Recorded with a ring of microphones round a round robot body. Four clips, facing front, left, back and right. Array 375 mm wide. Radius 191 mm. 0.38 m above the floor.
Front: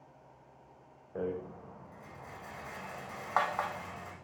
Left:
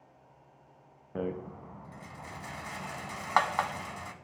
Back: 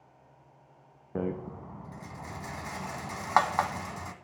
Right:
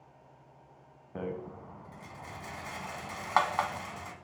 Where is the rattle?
170° left, 0.5 m.